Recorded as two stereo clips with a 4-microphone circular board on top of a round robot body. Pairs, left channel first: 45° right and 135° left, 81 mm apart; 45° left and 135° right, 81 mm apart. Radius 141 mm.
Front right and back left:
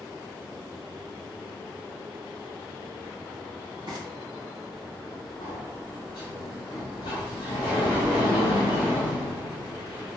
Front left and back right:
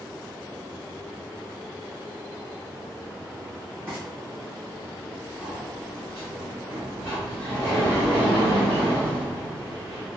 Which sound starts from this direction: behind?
Frying, at 3.9 s.